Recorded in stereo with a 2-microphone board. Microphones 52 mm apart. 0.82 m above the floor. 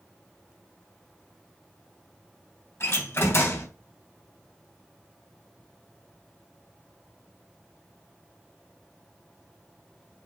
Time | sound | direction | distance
2.8 | a door slam | 55° left (ahead or behind) | 3 m